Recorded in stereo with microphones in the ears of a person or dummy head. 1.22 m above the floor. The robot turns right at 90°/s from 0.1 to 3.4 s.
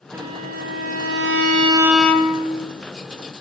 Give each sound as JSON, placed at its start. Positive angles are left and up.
{"t": 0.1, "sound": "a violin", "azimuth_deg": -165, "distance_m": 2.5}